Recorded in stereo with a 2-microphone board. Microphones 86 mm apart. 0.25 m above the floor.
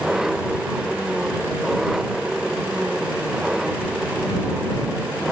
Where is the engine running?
5° right (ahead or behind).